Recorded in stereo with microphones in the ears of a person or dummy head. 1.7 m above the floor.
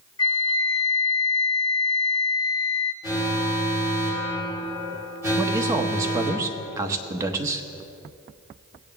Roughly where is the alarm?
Right.